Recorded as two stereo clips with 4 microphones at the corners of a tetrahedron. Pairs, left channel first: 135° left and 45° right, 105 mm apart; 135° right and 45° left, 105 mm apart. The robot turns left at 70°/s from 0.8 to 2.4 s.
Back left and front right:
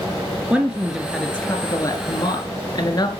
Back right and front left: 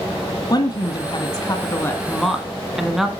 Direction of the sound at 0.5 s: 120° right.